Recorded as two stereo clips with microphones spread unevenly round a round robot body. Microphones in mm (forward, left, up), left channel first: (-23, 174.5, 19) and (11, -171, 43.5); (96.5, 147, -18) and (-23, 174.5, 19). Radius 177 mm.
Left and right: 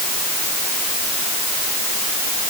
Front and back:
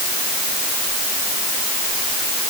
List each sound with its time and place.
Only background noise.